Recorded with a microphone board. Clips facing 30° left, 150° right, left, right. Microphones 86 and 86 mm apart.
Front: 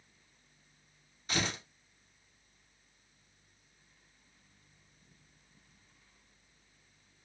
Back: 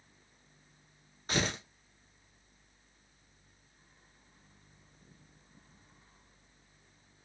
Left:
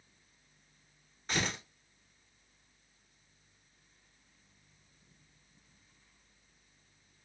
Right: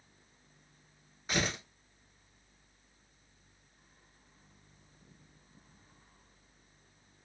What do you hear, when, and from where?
1.3 s tearing paper: 170° right, 1.1 m